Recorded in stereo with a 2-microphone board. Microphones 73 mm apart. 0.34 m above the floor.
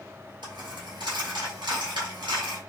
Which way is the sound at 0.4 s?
85° right.